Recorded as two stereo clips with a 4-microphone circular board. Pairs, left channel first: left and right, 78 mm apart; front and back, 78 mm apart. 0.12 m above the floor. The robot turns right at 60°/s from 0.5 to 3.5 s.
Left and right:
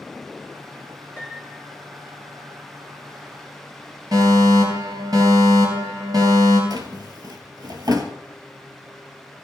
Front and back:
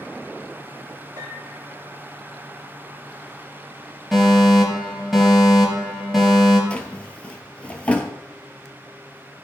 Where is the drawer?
70° right, 1.3 m.